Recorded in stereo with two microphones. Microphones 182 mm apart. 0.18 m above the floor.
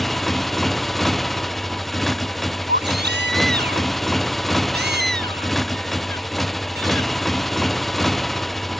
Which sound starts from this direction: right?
A baby crying, at 2.7 s.